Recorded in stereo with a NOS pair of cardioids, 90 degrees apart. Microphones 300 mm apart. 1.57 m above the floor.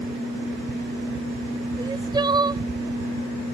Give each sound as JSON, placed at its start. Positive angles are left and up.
{"t": 1.8, "sound": "crying", "azimuth_deg": -15}